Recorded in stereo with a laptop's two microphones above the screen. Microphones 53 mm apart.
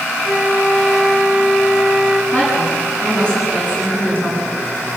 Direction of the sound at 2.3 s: 25° left (ahead or behind).